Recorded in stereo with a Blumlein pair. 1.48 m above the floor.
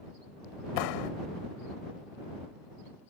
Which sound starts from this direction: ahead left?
A clap, at 0.8 s.